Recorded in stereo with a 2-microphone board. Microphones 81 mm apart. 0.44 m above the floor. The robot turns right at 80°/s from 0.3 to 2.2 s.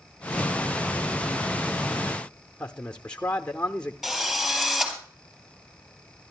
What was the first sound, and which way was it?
A man speaking, 10° left (ahead or behind).